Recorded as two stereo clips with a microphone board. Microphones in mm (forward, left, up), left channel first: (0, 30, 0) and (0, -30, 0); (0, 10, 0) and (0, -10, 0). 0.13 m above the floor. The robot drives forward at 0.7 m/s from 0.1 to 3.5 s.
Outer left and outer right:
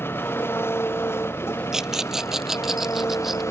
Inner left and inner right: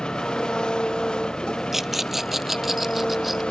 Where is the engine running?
40° left (ahead or behind); by 3.5 s 55° left (ahead or behind).